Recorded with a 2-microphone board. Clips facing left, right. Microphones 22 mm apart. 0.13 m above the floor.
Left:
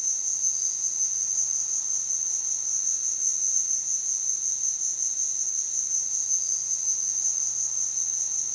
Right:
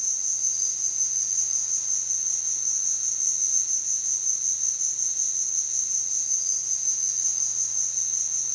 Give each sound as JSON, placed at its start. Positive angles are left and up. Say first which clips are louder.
{"t": 0.0, "sound": "an insect", "louder": "right 1 dB", "side_deg": -60, "distance_m": 3.5}